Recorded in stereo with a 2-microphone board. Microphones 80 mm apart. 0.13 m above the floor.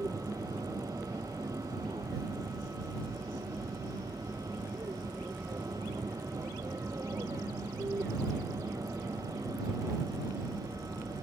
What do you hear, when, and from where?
0.0 s an aircraft: 45° right (ahead or behind)